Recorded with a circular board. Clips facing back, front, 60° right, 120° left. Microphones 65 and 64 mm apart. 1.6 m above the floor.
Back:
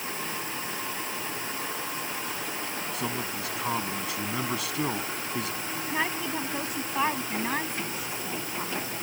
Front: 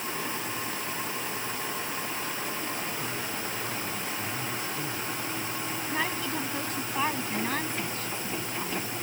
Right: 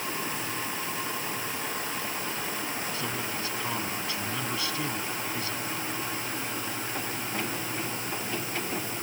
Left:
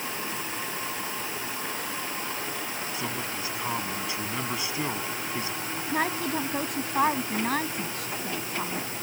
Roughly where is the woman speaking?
Left.